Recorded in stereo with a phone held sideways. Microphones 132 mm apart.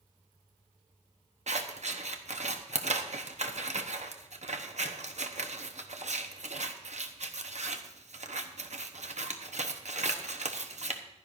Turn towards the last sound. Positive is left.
turn(degrees=-60)  # may be behind; listen again after turning